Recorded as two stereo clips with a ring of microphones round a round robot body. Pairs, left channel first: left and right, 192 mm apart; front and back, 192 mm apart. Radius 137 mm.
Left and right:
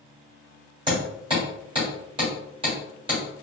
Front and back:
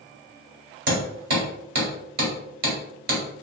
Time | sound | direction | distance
0.9 | hammering | 155° right | 1.2 m